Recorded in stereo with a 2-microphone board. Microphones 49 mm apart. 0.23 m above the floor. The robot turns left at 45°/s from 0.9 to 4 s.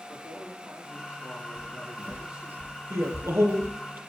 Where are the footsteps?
25° right (ahead or behind), 3 m; by 3.8 s 80° right, 2.5 m.